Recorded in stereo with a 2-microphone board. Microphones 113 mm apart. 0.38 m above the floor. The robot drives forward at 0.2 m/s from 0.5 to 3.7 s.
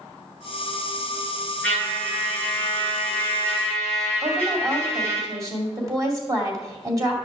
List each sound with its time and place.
1.6 s a trumpet: 10° left (ahead or behind), 4.5 m
4.2 s a woman speaking: 30° right (ahead or behind), 2 m